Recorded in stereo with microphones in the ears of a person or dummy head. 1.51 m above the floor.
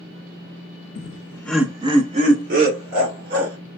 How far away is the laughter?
About 0.7 m.